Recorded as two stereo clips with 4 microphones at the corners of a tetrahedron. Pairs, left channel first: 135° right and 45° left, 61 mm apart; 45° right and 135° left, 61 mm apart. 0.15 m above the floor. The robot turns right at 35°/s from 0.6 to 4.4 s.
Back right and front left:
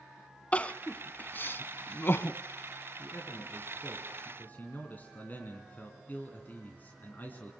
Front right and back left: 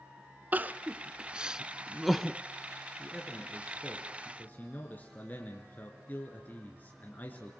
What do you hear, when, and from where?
0.5 s crying: 170° left, 0.5 m; by 2.4 s 130° right, 0.5 m
3.0 s a man speaking: 140° right, 2.5 m; by 7.5 s 90° right, 2.5 m